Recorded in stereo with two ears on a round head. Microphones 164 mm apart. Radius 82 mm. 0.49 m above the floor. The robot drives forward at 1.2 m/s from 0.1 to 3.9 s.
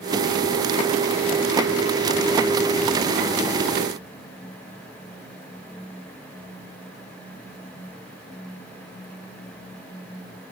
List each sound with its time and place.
Only background noise.